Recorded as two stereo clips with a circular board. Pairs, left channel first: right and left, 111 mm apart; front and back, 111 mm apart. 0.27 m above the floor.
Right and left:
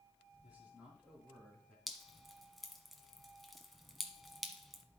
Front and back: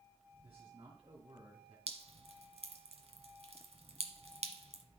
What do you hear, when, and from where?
0.4 s a man speaking: 165° left, 3 m; by 1.8 s 170° right, 3 m
1.9 s dripping: straight behind, 1.1 m